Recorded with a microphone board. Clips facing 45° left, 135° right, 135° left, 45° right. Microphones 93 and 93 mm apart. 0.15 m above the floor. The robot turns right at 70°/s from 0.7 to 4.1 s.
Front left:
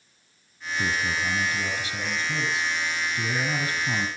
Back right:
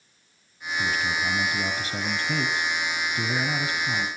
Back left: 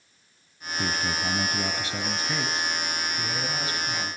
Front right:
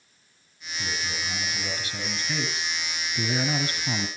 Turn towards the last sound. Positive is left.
turn(degrees=-20)